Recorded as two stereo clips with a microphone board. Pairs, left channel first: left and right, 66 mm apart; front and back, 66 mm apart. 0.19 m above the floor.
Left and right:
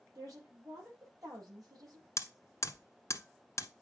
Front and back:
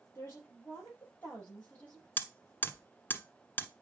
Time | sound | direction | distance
0.1 | a woman speaking | 55° right | 6 m
2.2 | hammering | 60° left | 1.1 m